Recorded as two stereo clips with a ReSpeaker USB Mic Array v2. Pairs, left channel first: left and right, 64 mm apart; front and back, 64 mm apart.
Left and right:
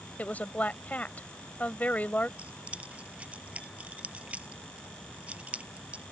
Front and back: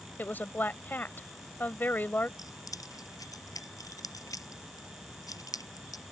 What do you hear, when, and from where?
0.2 s a woman speaking: 40° left
2.4 s keys jangling: 20° right